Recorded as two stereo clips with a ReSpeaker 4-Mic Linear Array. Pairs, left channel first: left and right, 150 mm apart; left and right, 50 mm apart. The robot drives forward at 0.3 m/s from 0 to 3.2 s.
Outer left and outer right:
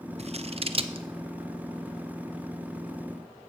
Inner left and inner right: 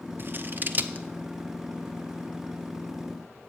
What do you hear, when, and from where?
0.2 s scissors: 45° right (ahead or behind), 0.6 m; by 1.1 s 35° right (ahead or behind), 0.7 m